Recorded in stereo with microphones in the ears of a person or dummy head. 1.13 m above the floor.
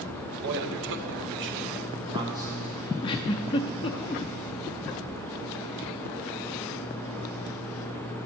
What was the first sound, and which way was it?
A man speaking, 60° right (ahead or behind).